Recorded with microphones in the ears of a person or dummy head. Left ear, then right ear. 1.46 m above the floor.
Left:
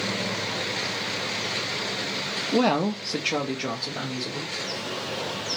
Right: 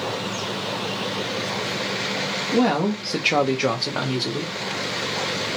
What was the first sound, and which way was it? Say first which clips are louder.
A woman speaking: right 1 dB; 35° left (ahead or behind).